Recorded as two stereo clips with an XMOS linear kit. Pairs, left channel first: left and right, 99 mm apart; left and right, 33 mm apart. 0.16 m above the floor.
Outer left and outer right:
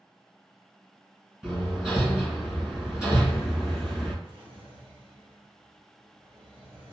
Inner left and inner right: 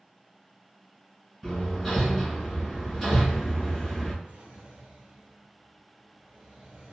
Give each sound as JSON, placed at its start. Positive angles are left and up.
{"t": 1.4, "sound": "hammering", "side_deg": -5, "distance_m": 1.6}
{"t": 4.2, "sound": "a drawer", "side_deg": -60, "distance_m": 1.4}